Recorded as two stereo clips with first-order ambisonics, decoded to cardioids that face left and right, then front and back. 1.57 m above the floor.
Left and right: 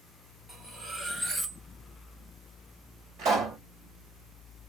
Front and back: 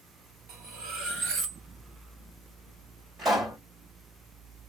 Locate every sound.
0.5 s cutlery clinking: 160° right, 1.1 m
3.2 s a pop: 115° right, 1.9 m